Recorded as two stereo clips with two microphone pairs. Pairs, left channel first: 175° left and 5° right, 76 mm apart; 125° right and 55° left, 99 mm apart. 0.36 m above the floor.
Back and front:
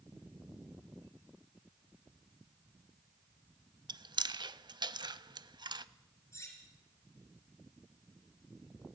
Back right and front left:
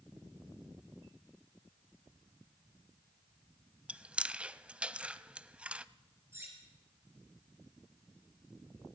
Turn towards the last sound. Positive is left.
turn(degrees=120)